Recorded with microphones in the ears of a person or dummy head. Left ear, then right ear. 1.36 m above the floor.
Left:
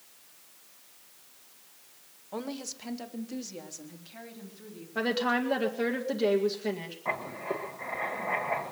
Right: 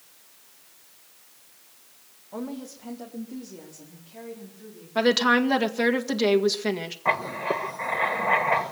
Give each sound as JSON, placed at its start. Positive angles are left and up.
{"t": 2.3, "sound": "a woman speaking", "side_deg": 75, "distance_m": 1.6}
{"t": 5.0, "sound": "a woman speaking", "side_deg": -35, "distance_m": 1.8}
{"t": 7.0, "sound": "writing", "side_deg": -75, "distance_m": 1.3}